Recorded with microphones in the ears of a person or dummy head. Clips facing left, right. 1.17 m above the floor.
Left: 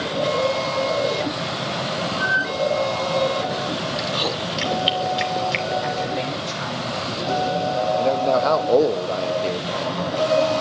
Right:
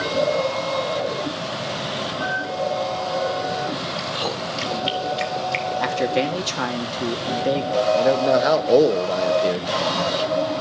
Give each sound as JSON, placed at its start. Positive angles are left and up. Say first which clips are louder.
{"t": 4.0, "sound": "chewing", "louder": "left 2 dB", "side_deg": 15, "distance_m": 2.0}
{"t": 5.8, "sound": "a man speaking", "louder": "right 4 dB", "side_deg": -80, "distance_m": 2.5}
{"t": 8.0, "sound": "a man speaking", "louder": "right 1 dB", "side_deg": -15, "distance_m": 1.1}